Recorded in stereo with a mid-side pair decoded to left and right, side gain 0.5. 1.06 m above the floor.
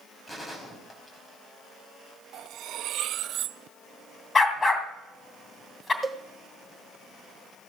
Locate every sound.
0.3 s a gunshot: 20° left, 4.5 m
2.3 s cutlery clinking: 70° right, 0.6 m
4.3 s a dog barking: 30° left, 2.5 m
6.0 s a cowbell: 15° right, 1.2 m